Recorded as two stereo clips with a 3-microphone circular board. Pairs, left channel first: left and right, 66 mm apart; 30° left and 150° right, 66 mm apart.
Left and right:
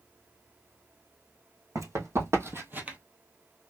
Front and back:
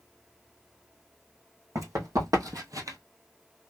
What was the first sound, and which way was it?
Running footsteps, 120° right.